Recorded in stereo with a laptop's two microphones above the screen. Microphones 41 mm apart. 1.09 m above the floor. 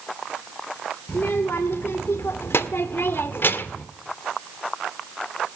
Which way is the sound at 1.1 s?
60° left (ahead or behind).